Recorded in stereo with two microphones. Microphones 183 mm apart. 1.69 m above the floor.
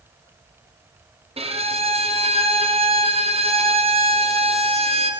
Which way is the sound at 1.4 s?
35° right (ahead or behind).